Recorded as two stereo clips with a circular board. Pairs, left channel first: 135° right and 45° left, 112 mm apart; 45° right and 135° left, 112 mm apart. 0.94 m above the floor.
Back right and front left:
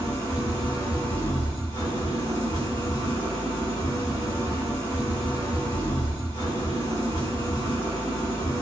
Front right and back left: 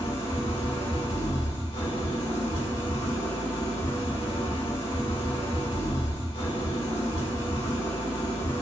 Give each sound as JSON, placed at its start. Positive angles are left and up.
{"t": 0.0, "sound": "an engine running", "azimuth_deg": -75, "distance_m": 3.5}